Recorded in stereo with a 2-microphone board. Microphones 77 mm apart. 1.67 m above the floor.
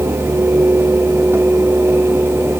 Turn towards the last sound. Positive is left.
No sound to turn to.